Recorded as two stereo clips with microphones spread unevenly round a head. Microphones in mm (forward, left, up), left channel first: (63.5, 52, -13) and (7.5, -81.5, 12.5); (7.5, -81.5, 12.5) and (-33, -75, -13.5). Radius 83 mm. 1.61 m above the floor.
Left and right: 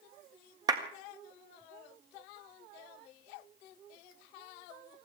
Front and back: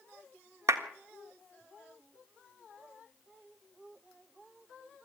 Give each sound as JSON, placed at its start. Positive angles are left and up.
{"t": 0.7, "sound": "a clap", "azimuth_deg": -175, "distance_m": 1.5}